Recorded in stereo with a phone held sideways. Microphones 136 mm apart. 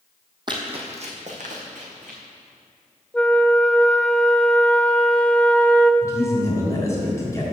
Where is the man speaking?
20° left (ahead or behind), 3.5 m.